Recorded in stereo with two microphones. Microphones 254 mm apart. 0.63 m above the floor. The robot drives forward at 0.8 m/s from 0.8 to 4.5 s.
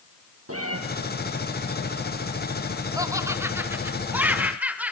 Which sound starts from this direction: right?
A cat meowing, at 0.5 s.